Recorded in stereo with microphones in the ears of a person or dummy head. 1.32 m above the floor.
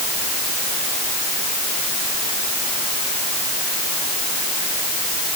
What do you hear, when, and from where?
Only background noise.